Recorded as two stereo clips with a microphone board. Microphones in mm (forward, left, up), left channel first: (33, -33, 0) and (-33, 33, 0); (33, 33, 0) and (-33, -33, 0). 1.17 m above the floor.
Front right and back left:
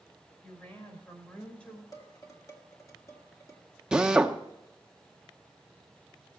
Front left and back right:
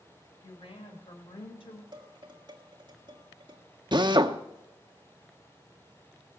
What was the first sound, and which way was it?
A woman speaking, 25° left.